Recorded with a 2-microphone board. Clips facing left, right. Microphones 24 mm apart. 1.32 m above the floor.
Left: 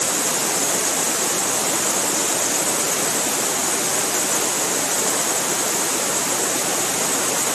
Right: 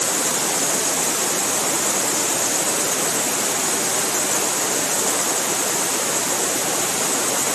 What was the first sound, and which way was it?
Only background noise.